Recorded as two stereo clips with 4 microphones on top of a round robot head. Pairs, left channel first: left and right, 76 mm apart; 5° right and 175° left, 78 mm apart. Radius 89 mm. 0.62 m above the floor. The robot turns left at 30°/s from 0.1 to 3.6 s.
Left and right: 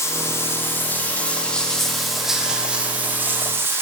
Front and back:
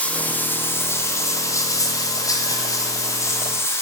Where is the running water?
60° left, 0.7 m; by 3.8 s 45° right, 0.7 m.